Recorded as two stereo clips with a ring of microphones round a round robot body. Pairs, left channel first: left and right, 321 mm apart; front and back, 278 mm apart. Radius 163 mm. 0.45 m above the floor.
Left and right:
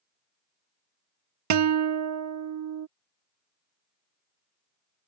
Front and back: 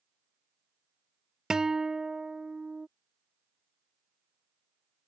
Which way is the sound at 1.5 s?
95° right.